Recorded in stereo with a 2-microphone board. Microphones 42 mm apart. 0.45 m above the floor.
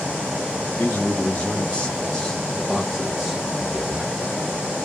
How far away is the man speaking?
About 1.6 m.